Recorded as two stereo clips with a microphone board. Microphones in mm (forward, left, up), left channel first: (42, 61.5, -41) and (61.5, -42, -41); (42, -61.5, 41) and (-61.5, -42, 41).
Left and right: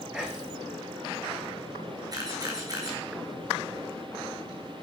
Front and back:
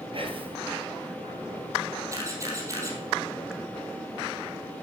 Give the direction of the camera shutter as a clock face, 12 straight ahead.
4 o'clock.